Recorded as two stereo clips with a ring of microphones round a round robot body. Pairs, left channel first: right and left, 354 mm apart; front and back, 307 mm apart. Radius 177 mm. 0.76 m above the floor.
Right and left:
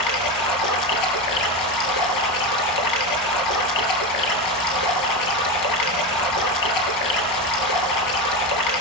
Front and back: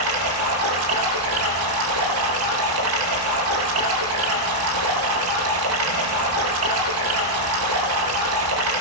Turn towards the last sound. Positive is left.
turn(degrees=-125)